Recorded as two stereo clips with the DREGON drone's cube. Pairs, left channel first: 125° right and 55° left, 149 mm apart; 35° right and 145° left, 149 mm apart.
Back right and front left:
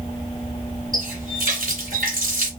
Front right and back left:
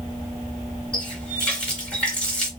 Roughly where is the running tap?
Ahead left.